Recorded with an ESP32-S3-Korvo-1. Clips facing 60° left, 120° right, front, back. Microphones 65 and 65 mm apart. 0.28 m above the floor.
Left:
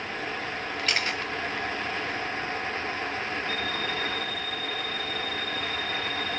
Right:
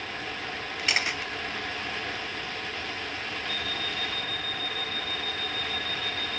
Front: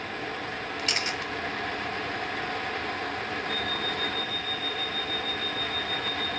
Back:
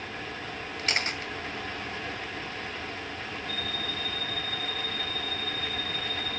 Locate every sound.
0.8 s a camera shutter: 170° left, 1.7 m
3.5 s an alarm clock: 145° left, 5 m